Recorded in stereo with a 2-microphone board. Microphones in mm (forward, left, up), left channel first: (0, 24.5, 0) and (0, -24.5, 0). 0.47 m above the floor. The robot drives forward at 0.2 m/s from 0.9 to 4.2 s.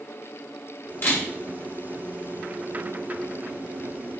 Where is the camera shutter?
50° left (ahead or behind), 1.3 m.